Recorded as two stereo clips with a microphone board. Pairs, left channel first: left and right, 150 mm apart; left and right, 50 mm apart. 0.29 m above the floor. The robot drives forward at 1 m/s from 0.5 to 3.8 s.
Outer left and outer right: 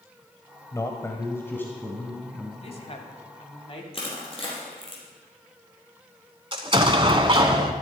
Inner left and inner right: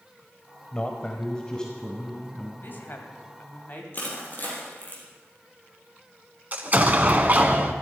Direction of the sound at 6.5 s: 35° right (ahead or behind).